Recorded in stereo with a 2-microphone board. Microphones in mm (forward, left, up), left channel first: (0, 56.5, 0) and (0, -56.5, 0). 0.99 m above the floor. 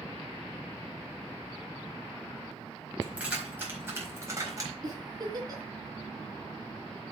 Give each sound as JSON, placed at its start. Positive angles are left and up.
{"t": 3.0, "sound": "keys jangling", "side_deg": -10, "distance_m": 4.5}
{"t": 4.8, "sound": "a giggle", "side_deg": -35, "distance_m": 3.5}